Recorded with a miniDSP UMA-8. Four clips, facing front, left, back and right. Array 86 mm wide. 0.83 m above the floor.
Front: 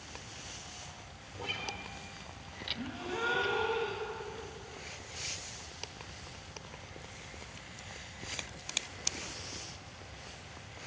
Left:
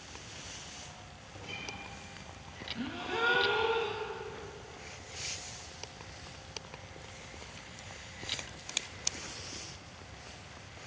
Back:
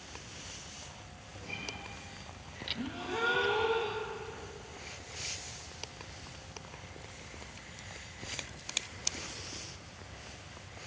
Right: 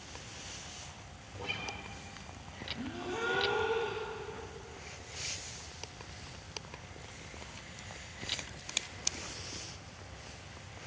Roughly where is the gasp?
Left.